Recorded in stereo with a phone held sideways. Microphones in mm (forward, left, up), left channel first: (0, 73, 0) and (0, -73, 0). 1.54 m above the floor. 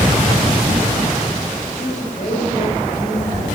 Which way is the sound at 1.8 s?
60° left (ahead or behind).